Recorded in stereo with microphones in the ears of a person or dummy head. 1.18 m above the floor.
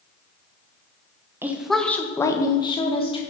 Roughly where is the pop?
No pop in this recording.